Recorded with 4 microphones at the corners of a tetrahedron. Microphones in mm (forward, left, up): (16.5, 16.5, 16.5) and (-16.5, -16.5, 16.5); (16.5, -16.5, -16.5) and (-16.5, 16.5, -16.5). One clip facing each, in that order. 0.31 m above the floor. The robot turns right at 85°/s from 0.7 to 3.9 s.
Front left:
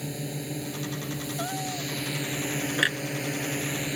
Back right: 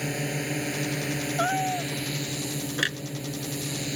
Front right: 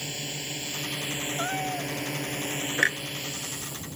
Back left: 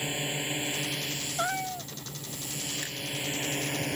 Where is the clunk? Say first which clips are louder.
Front left 2 dB, front right 14 dB; 35° right; by 3.0 s 20° right.